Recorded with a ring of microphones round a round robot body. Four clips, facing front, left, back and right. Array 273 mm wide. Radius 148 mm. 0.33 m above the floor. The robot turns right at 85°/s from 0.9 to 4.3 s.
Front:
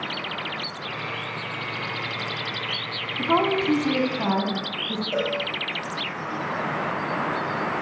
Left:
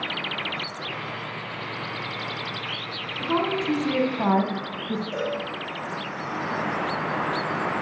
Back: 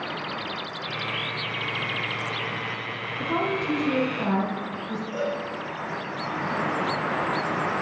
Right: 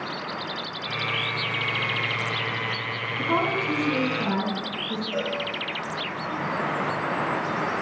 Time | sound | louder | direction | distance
3.2 | a woman speaking | even, front 5 dB | 20° right | 3.5 m
5.1 | a cowbell | right 1 dB, front 3 dB | 20° left | 6 m